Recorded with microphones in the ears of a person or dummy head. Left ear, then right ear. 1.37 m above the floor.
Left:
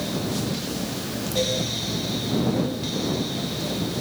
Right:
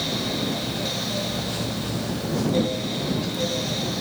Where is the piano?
No piano in this recording.